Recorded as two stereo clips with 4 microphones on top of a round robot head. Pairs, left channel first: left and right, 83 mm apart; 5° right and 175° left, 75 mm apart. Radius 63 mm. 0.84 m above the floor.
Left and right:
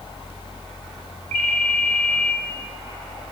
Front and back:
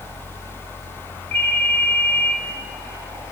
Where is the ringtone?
75° right, 1.9 m.